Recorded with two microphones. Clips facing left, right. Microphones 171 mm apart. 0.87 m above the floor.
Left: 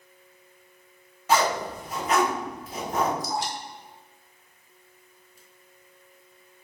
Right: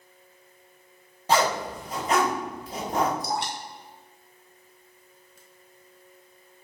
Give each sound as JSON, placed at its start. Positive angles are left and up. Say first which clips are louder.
{"t": 1.3, "sound": "a zipper", "louder": "even", "side_deg": -30, "distance_m": 1.6}
{"t": 3.2, "sound": "dripping", "louder": "even", "side_deg": -65, "distance_m": 0.8}